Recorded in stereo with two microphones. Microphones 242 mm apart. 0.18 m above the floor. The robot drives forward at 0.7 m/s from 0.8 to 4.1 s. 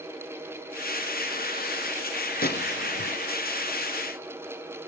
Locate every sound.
2.4 s a gunshot: 40° left (ahead or behind), 0.7 m; by 3.2 s 65° left (ahead or behind), 0.5 m